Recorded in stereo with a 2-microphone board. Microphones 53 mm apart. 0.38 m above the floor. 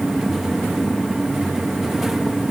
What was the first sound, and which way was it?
Only background noise.